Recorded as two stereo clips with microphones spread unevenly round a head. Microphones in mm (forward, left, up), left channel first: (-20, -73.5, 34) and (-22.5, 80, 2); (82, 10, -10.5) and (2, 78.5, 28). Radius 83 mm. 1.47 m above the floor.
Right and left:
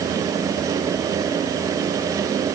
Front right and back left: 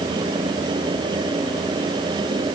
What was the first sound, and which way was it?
Only background noise.